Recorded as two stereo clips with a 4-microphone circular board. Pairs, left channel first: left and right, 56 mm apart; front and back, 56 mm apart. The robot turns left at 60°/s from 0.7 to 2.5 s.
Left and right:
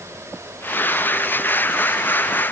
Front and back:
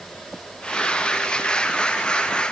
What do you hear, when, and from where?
Only background noise.